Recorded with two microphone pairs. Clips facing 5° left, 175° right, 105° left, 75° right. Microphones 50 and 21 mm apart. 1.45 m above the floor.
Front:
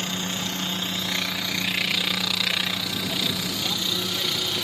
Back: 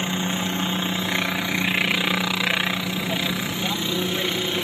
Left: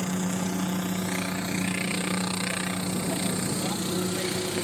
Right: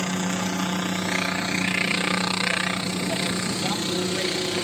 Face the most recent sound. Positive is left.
turn(degrees=-125)